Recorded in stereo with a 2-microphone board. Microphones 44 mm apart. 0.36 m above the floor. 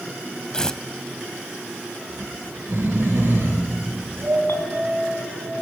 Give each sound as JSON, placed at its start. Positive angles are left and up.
{"t": 0.5, "sound": "tearing paper", "side_deg": 15, "distance_m": 0.5}
{"t": 2.1, "sound": "snoring", "side_deg": -55, "distance_m": 4.5}
{"t": 4.5, "sound": "a clink", "side_deg": 65, "distance_m": 2.5}